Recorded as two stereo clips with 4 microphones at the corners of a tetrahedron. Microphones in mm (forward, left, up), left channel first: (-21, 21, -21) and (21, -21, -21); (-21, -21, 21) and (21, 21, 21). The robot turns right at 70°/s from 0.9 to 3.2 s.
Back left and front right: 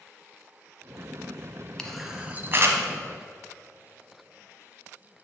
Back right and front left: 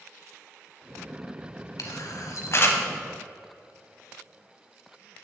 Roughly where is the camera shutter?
Behind right.